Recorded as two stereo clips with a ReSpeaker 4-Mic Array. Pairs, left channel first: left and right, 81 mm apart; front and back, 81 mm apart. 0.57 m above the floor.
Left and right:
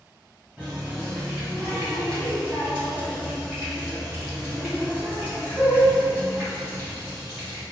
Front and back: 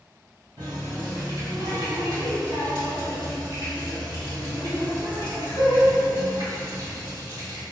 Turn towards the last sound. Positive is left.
turn(degrees=-160)